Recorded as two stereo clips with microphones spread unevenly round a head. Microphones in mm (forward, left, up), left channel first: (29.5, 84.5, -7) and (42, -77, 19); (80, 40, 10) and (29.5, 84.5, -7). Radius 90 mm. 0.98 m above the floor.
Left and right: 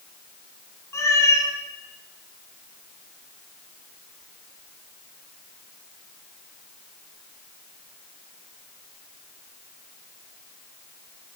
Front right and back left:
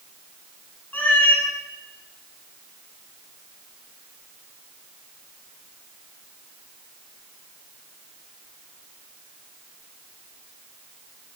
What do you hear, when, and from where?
0.9 s a cat meowing: 20° left, 5 m